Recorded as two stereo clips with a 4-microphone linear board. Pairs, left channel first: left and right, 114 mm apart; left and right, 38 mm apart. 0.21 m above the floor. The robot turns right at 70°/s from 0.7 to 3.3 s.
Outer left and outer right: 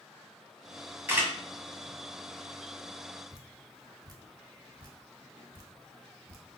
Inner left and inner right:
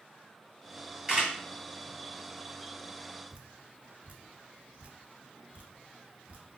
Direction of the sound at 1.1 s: 20° right (ahead or behind).